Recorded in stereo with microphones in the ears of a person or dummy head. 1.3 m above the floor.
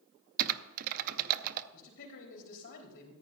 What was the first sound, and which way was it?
Typing on a keyboard, 50° right (ahead or behind).